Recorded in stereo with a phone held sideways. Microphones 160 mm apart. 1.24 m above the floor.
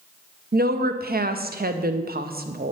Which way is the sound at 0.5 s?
70° right (ahead or behind).